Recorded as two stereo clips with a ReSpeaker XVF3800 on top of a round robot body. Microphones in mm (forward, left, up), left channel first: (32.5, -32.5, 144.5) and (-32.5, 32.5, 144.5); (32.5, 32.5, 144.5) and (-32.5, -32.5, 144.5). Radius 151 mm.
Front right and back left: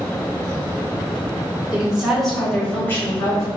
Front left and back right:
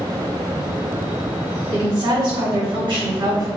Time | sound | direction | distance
1.7 | a woman speaking | 145° right | 1.9 m